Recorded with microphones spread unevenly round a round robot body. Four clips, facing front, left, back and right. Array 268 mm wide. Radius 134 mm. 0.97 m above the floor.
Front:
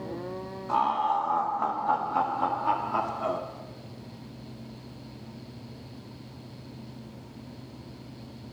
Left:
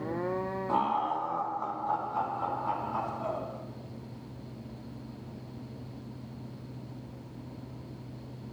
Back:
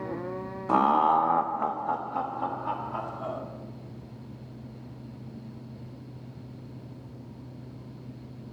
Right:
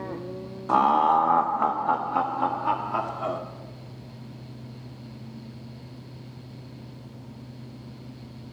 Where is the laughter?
160° right, 0.6 m; by 3.4 s 60° right, 2.5 m.